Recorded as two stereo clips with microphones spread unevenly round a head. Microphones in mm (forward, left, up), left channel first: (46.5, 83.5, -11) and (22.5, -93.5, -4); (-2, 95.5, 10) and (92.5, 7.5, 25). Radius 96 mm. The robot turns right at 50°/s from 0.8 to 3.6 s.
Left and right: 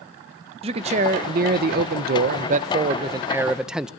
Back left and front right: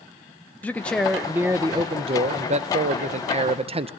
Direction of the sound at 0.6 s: 150° right.